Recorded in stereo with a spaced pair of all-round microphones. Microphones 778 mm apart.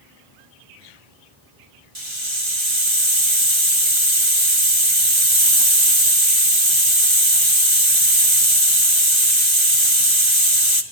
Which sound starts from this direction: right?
A hiss, at 1.9 s.